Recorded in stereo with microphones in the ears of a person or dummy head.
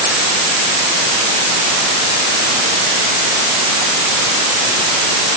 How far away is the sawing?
No sawing in this recording.